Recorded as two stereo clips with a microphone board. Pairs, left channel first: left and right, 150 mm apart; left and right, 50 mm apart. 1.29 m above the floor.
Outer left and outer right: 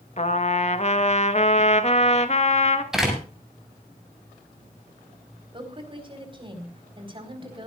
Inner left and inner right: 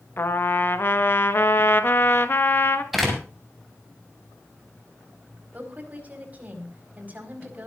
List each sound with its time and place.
0.2 s a trumpet: 45° left (ahead or behind), 1.4 m
2.9 s a door slam: 5° right (ahead or behind), 7 m
5.5 s a woman speaking: 35° right (ahead or behind), 4.5 m